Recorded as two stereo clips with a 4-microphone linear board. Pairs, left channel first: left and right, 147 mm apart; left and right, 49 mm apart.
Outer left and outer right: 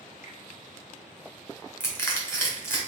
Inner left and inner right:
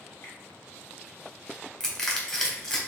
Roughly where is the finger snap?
Left.